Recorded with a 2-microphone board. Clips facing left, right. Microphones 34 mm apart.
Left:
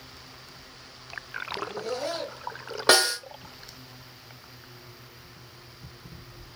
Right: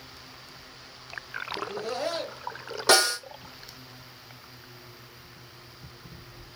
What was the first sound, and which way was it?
Laughter, 15° right (ahead or behind).